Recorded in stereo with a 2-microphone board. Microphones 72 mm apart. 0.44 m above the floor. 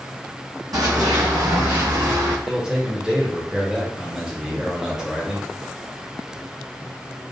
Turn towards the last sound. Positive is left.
turn(degrees=-10)  # may be behind; listen again after turning